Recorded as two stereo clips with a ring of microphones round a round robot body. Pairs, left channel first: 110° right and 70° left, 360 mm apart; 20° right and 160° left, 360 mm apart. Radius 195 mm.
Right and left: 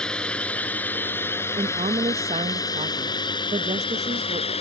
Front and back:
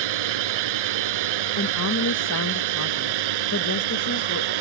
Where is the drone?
160° left; by 4.6 s 175° left.